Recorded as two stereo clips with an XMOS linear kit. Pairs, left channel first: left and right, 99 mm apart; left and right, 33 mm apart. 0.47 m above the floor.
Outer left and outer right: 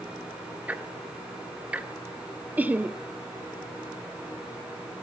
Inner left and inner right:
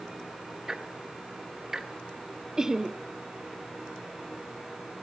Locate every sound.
0.7 s ticking: 15° right (ahead or behind), 1.3 m
2.6 s laughter: 15° right (ahead or behind), 0.8 m